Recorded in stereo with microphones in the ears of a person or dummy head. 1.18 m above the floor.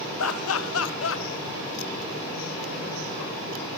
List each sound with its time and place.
0.2 s laughter: 70° left (ahead or behind), 1.5 m; by 1.2 s 60° left (ahead or behind), 0.9 m